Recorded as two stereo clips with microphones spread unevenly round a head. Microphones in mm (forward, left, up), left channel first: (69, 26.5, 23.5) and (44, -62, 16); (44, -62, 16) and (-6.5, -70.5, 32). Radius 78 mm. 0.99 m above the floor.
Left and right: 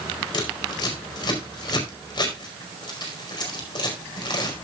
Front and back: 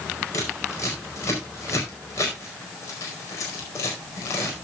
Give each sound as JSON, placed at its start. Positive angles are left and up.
{"t": 0.3, "sound": "scissors", "azimuth_deg": 35, "distance_m": 4.5}